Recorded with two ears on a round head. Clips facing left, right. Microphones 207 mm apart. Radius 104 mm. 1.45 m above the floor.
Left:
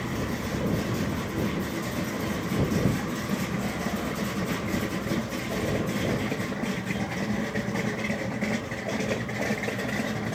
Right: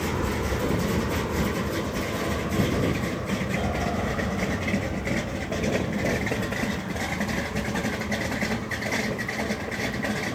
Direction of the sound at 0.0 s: 75° right (ahead or behind).